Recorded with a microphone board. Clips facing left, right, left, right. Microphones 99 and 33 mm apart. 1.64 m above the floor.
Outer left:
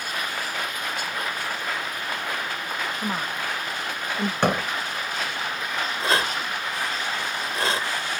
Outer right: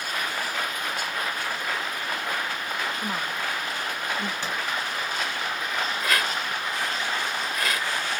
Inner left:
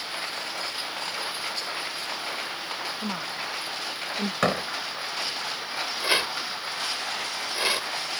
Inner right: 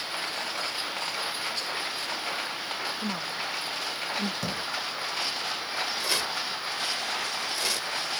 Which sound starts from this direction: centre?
A woman speaking, at 3.0 s.